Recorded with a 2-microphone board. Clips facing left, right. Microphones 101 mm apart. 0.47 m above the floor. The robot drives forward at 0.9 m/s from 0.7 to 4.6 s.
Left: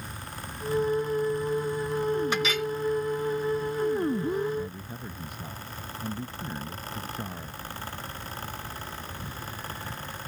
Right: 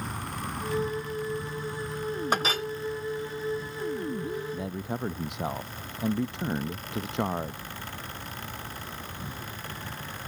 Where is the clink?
40° right (ahead or behind); by 2.7 s 30° right (ahead or behind).